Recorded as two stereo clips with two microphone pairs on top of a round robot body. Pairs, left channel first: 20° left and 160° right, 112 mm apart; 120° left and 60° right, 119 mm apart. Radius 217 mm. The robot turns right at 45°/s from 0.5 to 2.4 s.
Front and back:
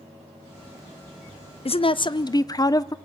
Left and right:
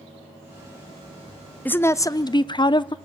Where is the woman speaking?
45° left, 0.8 m; by 3.0 s 75° left, 0.8 m.